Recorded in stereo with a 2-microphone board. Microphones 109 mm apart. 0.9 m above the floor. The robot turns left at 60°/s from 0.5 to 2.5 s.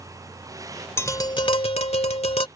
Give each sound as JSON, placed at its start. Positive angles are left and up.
{"t": 1.0, "sound": "tapping", "azimuth_deg": 155}